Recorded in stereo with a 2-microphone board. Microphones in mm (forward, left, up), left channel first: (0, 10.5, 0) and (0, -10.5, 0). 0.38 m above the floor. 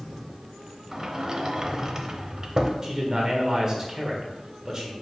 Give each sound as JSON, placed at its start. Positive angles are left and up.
{"t": 0.9, "sound": "a sliding door", "side_deg": -25, "distance_m": 0.8}
{"t": 2.8, "sound": "a man speaking", "side_deg": -20, "distance_m": 1.4}